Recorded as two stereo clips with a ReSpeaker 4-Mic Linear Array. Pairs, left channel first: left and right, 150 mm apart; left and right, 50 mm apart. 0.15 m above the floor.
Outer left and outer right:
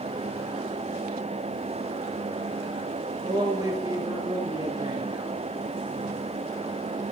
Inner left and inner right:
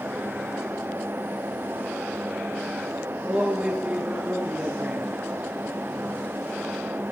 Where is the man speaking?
25° right (ahead or behind), 2 m.